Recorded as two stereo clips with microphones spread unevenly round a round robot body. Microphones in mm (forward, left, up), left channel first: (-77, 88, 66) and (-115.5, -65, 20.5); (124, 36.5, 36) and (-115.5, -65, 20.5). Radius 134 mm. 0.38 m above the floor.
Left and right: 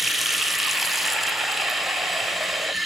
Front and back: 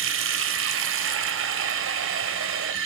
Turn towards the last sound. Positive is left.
turn(degrees=175)